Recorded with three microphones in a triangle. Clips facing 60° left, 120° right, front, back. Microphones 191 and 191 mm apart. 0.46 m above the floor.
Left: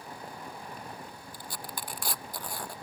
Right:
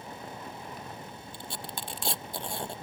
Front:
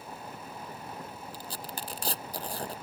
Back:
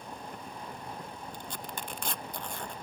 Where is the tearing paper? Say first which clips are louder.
Right 1 dB, front 1 dB; 55° right.